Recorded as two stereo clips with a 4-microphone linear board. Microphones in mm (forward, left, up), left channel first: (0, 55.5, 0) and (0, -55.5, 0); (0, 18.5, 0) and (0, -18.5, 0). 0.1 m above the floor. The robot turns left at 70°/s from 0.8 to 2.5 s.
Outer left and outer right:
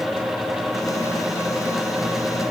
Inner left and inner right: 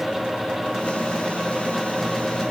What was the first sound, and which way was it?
Only background noise.